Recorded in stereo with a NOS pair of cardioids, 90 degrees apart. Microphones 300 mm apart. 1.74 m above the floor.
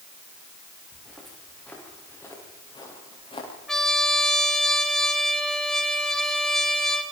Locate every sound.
0.9 s footsteps: straight ahead, 8.5 m; by 3.5 s 20° left, 8 m
3.7 s a trumpet: straight ahead, 3 m